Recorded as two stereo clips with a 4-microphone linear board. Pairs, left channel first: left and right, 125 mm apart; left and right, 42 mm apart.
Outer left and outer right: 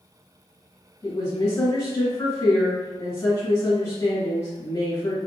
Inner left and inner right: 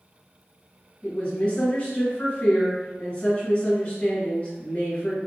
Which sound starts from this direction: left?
A woman speaking, at 1.0 s.